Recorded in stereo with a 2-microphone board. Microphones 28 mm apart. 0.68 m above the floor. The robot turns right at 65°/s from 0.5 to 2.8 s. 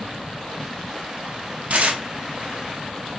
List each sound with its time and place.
1.7 s tearing paper: 50° right (ahead or behind), 0.7 m; by 2.0 s 65° right (ahead or behind), 0.7 m